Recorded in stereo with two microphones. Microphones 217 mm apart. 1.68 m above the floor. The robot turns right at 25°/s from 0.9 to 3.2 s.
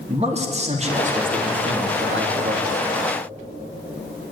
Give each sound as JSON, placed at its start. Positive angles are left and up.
{"t": 0.1, "sound": "a man speaking", "azimuth_deg": -150, "distance_m": 3.0}